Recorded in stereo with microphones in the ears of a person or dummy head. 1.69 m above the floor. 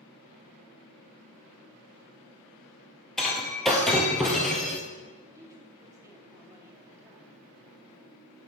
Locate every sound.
3.2 s breaking glass: centre (ahead or behind), 1.8 m
5.3 s a woman speaking: 10° right (ahead or behind), 3.5 m